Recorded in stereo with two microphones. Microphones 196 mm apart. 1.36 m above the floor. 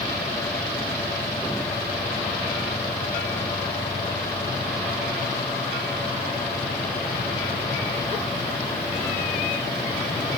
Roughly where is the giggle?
I don't hear a giggle.